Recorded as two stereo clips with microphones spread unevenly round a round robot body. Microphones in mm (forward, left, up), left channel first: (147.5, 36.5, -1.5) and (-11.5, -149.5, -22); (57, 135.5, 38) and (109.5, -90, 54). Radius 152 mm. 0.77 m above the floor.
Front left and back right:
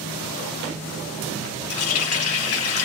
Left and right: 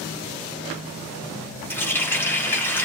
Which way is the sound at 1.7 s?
20° left.